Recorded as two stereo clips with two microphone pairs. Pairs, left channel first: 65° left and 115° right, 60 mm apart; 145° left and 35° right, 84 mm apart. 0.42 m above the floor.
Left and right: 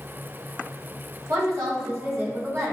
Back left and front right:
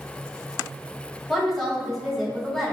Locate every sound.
1.3 s a woman speaking: 140° right, 1.9 m